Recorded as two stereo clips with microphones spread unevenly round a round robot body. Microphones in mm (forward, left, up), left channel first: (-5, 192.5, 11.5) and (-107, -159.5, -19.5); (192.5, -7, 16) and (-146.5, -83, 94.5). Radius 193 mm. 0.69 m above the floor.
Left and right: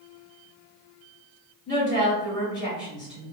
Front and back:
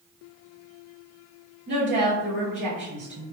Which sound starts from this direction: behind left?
A woman speaking, at 1.7 s.